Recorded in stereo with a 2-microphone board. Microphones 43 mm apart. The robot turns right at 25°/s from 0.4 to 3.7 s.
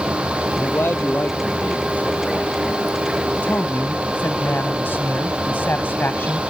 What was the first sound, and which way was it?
A man speaking, 110° left.